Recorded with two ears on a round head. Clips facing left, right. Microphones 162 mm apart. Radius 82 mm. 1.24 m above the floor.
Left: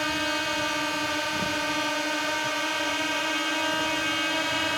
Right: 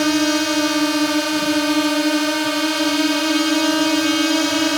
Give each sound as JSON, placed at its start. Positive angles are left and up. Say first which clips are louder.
{"t": 0.0, "sound": "a drone", "louder": "right 13 dB", "side_deg": -55}